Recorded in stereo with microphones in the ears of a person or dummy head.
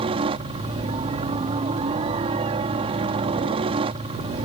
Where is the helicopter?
30° right (ahead or behind).